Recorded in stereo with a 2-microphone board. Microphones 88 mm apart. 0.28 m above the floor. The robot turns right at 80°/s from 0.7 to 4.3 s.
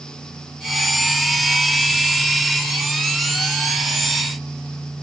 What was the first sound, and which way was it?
Only background noise.